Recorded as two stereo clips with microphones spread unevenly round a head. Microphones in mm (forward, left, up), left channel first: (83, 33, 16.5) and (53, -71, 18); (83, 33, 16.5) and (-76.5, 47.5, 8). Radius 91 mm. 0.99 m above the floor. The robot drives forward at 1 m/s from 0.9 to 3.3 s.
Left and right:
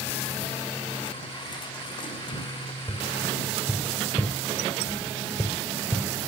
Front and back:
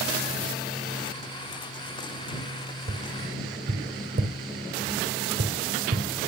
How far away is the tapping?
About 2.5 m.